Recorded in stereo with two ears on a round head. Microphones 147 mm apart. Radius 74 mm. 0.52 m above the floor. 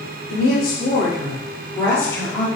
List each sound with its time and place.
0.3 s a woman speaking: 35° left (ahead or behind), 1.4 m; by 2.5 s 10° left (ahead or behind), 1.4 m